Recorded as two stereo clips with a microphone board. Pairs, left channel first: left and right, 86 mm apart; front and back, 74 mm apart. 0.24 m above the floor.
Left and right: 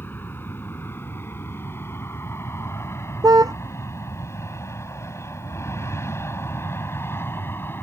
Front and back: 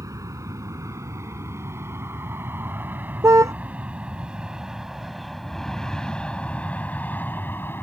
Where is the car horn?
135° right.